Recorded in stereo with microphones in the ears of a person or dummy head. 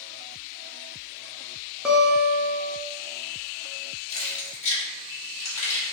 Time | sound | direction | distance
1.9 | a guitar | centre (ahead or behind) | 0.5 m
4.1 | keys jangling | 15° left (ahead or behind) | 1.3 m